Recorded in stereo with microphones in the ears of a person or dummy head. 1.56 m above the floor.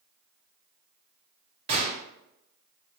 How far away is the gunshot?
About 0.8 m.